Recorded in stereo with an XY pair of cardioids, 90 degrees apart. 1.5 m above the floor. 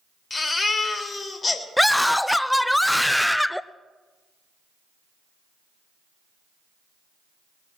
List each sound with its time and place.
0.3 s a baby crying: 35° left, 3 m
1.8 s a scream: 5° left, 0.7 m